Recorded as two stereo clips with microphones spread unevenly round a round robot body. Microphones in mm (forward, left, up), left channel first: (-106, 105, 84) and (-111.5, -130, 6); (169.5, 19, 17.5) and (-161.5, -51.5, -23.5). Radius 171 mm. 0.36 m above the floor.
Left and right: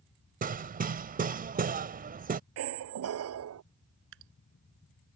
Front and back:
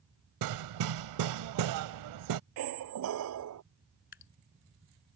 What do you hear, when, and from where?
0.4 s hammering: 140° right
2.6 s a squeak: 120° right
4.1 s dripping: 45° right